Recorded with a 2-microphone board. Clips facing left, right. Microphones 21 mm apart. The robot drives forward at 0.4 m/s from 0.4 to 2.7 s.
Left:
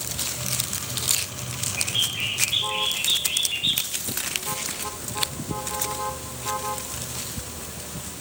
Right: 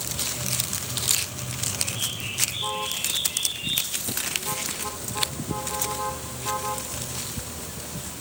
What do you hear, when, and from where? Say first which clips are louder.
1.8 s a bird: left 9 dB; 55° left (ahead or behind), 5.5 m; by 3.9 s 50° left (ahead or behind), 6 m